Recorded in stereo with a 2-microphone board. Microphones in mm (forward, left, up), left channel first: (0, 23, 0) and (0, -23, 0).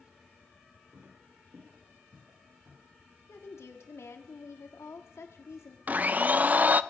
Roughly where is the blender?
Right.